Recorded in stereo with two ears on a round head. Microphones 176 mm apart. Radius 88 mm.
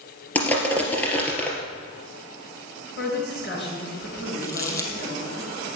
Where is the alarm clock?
I don't hear an alarm clock.